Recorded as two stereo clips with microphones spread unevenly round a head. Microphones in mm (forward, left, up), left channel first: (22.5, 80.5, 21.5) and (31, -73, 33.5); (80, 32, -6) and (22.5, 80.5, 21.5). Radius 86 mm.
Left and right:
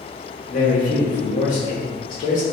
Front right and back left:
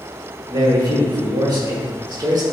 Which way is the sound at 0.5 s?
105° left.